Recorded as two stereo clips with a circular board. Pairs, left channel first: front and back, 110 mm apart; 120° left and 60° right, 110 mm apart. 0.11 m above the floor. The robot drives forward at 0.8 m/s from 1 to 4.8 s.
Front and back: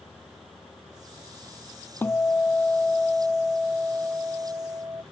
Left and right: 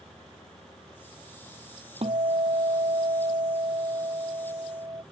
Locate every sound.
2.0 s a guitar: 70° right; by 5.0 s 115° right